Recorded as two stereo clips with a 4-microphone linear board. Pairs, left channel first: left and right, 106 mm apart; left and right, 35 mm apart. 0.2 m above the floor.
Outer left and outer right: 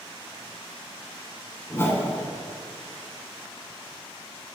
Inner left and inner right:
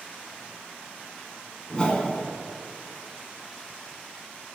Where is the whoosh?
25° left (ahead or behind), 1.2 m.